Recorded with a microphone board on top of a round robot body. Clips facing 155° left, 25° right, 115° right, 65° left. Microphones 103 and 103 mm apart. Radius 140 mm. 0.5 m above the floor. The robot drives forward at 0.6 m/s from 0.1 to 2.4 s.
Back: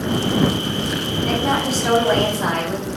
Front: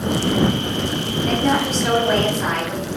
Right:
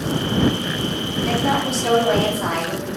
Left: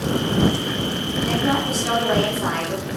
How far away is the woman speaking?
About 4 m.